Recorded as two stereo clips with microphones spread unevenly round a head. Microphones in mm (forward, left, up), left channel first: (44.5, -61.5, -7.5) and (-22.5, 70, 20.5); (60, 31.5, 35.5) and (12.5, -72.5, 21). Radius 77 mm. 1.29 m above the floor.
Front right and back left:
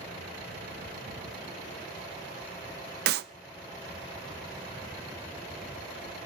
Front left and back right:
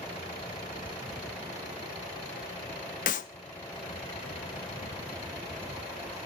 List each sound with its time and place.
3.1 s a clap: 105° left, 0.5 m